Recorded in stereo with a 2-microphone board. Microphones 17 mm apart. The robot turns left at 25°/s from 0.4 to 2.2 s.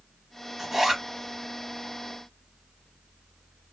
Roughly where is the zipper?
Right.